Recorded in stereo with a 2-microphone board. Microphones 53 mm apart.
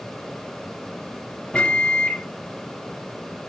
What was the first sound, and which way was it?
A microwave, 15° left (ahead or behind).